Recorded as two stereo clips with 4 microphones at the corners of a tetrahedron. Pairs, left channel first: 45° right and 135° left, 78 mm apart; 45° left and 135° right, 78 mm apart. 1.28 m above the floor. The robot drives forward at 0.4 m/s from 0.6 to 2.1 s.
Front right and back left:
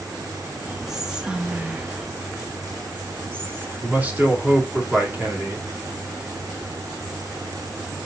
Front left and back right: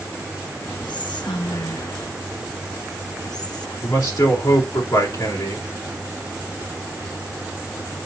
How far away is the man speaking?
About 3 m.